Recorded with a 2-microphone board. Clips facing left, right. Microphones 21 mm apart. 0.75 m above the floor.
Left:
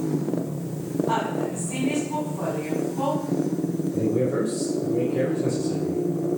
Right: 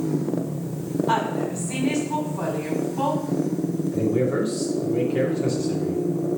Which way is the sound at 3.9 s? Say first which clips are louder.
Right 1 dB; 50° right (ahead or behind).